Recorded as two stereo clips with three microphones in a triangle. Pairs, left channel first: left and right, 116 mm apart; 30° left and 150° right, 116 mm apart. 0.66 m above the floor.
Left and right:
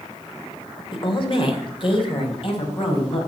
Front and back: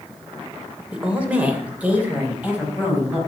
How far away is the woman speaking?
About 2 m.